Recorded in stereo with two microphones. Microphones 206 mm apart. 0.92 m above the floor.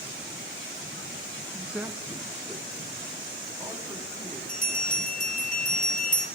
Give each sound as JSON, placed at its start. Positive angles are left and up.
{"t": 1.5, "sound": "a man speaking", "side_deg": 0, "distance_m": 0.8}
{"t": 4.5, "sound": "a bell", "side_deg": 40, "distance_m": 2.5}